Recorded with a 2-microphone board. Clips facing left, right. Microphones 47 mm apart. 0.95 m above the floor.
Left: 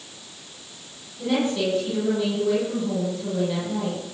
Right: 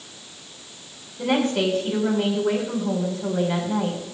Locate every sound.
1.2 s a woman speaking: 65° right (ahead or behind), 6.5 m